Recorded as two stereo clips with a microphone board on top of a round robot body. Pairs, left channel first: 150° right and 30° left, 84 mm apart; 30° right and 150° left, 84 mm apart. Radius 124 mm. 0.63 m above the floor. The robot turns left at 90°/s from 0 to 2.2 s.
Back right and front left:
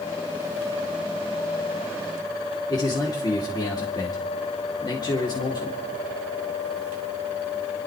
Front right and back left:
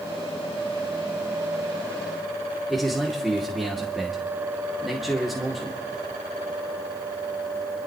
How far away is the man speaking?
About 2.5 m.